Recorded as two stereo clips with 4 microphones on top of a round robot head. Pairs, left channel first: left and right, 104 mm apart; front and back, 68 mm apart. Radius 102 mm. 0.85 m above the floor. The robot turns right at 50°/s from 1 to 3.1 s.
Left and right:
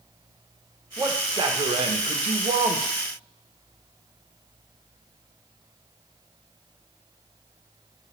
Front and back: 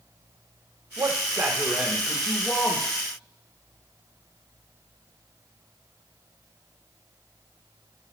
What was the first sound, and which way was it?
A man speaking, 150° right.